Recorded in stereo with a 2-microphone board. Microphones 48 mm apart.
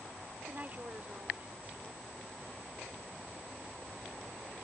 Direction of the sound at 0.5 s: 35° right (ahead or behind).